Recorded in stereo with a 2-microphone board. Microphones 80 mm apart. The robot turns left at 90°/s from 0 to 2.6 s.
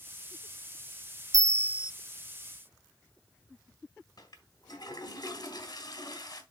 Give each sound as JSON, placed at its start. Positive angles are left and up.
{"t": 1.3, "sound": "a bell", "azimuth_deg": -115, "distance_m": 0.6}
{"t": 4.2, "sound": "a toilet flushing", "side_deg": 55, "distance_m": 1.8}